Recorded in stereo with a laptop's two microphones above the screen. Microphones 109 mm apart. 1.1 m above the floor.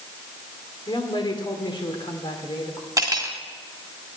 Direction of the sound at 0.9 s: 45° left (ahead or behind).